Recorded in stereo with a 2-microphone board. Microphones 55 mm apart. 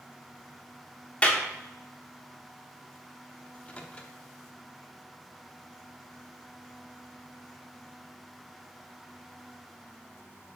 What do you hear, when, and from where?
1.2 s a clap: 25° left (ahead or behind), 1.0 m
3.5 s a microwave: 25° left (ahead or behind), 0.7 m